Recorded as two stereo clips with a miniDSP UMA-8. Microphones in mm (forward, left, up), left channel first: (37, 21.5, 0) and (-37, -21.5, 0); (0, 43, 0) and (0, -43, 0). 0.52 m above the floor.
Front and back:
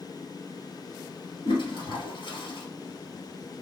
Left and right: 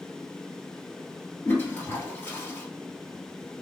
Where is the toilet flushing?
25° left, 1.5 m.